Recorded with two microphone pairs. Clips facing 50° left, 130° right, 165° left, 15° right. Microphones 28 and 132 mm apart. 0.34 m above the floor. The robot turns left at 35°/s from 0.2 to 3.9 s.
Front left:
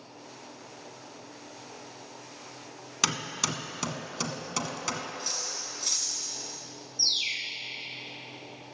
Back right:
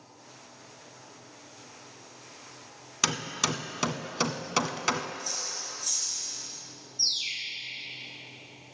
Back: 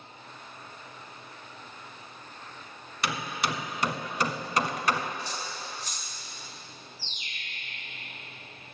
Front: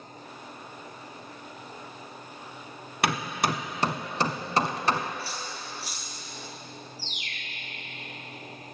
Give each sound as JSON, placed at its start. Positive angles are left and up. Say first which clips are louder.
{"t": 3.0, "sound": "hammering", "louder": "back right 1 dB, front 4 dB", "azimuth_deg": -40, "distance_m": 0.7}
{"t": 5.2, "sound": "cutlery clinking", "louder": "front left 1 dB, even", "azimuth_deg": 70, "distance_m": 2.0}
{"t": 7.0, "sound": "a bird", "louder": "front left 2 dB, front 4 dB", "azimuth_deg": -20, "distance_m": 1.4}